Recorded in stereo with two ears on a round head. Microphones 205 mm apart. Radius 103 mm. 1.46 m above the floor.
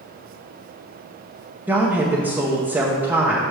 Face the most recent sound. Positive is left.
turn(degrees=-10)  # may be behind; listen again after turning